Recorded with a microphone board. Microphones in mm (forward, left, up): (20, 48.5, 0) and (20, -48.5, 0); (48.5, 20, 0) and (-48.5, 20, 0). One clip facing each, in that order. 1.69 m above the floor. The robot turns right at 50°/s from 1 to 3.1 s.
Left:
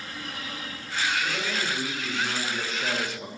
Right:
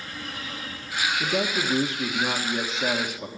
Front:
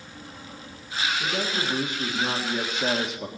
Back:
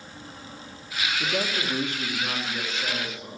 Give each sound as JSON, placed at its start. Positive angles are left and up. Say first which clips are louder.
{"t": 1.2, "sound": "a man speaking", "louder": "right 4 dB, even", "azimuth_deg": -105, "distance_m": 2.0}